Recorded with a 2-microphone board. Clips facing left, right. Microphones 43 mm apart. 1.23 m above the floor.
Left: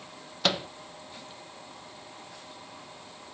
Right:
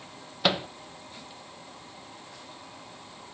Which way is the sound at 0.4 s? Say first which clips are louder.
Right 2 dB; 10° right (ahead or behind).